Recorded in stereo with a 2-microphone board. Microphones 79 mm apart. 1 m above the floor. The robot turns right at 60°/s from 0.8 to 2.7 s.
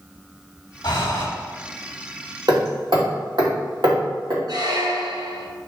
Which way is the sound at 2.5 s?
65° right (ahead or behind).